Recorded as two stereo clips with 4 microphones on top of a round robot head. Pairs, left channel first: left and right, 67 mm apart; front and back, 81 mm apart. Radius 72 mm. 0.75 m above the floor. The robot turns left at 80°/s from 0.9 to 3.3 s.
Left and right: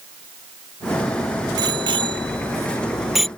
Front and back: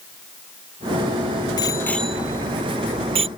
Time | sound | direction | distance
1.6 | a bicycle bell | 50° right | ?